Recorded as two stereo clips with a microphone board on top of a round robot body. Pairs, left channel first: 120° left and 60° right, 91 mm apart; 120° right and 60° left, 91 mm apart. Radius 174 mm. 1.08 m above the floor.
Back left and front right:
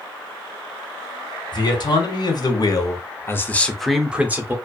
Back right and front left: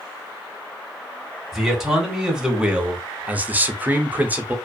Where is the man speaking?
145° left, 1.5 m; by 4.5 s 5° right, 0.9 m.